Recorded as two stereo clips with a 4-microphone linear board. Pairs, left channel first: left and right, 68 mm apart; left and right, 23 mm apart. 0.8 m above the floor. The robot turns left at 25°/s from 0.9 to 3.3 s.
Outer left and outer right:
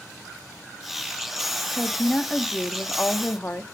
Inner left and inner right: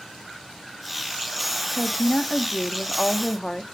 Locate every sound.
1.7 s a woman speaking: 170° right, 1.3 m; by 3.6 s 150° left, 1.3 m